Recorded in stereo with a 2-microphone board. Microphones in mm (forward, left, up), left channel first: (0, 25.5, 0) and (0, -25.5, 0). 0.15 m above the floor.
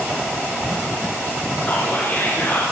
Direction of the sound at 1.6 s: 45° left (ahead or behind).